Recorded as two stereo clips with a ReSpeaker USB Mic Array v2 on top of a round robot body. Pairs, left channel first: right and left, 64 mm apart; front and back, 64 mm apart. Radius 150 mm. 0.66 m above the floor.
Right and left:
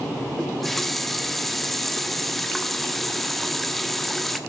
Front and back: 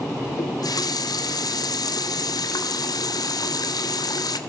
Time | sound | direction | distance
0.4 | a running tap | straight ahead | 1.2 m